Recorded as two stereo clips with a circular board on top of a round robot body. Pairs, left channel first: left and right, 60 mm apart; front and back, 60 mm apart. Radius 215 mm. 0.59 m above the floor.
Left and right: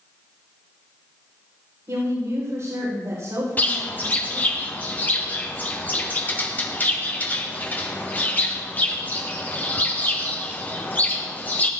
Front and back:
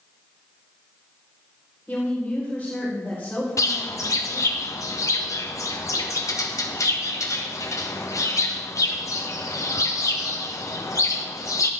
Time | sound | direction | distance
1.9 | a woman speaking | 75° right | 4.5 m
3.6 | a bird | 30° left | 1.3 m